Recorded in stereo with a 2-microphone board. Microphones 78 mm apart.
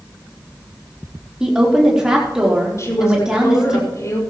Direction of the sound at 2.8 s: 40° left (ahead or behind).